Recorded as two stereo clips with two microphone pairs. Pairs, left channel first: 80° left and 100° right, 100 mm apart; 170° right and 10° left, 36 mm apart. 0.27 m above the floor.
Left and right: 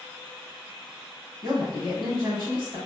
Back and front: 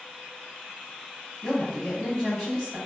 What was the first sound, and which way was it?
A woman speaking, 115° right.